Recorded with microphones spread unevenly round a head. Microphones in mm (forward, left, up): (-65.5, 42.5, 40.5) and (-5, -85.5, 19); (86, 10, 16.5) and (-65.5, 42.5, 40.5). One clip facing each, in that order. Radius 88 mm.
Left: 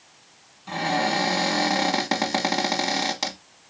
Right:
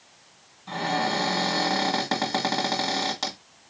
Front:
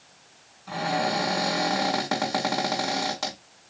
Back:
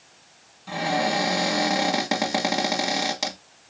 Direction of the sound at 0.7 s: 155° left.